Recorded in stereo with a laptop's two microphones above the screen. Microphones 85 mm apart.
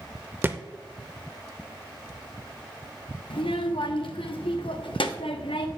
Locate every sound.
0.4 s a thud: 25° right (ahead or behind), 0.7 m
3.3 s a child speaking: 90° left, 1.0 m